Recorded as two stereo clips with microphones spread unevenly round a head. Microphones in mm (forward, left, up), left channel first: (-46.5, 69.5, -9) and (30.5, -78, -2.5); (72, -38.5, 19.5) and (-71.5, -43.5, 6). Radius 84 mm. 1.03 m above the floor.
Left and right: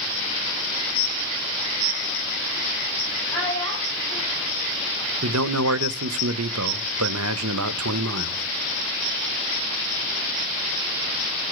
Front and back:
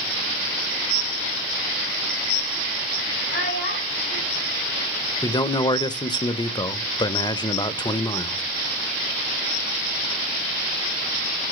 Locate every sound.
3.3 s a child speaking: 40° left, 4 m
5.2 s a man speaking: 60° right, 0.7 m